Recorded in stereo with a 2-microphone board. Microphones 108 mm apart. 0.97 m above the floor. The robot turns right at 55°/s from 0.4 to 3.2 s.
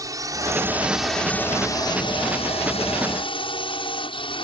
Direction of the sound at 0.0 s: 35° right.